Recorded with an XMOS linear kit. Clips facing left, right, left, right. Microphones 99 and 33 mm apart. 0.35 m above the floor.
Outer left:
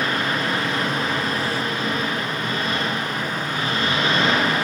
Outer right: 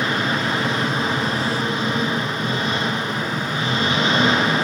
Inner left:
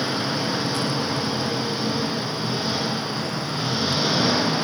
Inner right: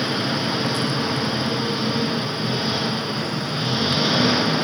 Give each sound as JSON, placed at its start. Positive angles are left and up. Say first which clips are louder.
{"t": 0.0, "sound": "an engine running", "louder": "outer right 1 dB, inner right 2 dB", "side_deg": -20, "distance_m": 3.5}